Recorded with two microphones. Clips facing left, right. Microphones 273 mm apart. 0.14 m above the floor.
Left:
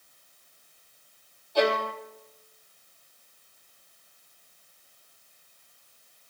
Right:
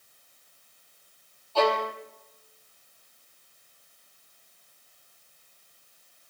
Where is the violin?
15° left (ahead or behind), 3.5 m.